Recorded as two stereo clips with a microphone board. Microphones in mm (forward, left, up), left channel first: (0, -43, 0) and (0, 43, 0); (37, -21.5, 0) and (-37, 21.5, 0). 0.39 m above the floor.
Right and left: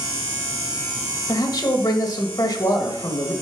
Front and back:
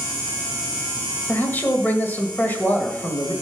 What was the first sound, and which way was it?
A man speaking, 95° right.